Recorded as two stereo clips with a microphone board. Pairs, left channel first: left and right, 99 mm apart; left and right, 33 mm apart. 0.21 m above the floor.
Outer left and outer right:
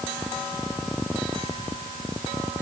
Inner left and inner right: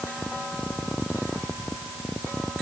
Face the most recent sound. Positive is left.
No sound to turn to.